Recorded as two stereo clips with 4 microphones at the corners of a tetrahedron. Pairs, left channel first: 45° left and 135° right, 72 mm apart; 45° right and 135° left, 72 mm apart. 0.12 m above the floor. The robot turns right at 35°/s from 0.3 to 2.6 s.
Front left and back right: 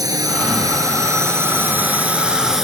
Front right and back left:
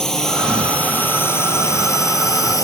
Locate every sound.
0.0 s a drone: 125° right; by 2.6 s 50° right